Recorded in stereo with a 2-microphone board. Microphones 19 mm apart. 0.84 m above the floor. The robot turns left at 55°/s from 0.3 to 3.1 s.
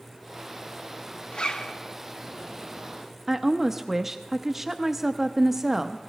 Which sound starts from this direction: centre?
A woman speaking, at 3.3 s.